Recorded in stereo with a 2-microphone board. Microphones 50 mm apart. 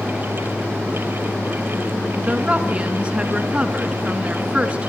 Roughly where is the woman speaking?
Right.